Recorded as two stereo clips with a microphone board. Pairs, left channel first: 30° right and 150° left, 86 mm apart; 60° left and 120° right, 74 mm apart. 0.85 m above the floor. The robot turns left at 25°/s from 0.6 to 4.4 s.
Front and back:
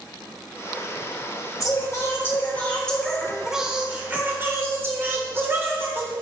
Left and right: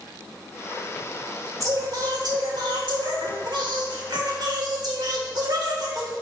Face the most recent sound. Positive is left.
turn(degrees=-150)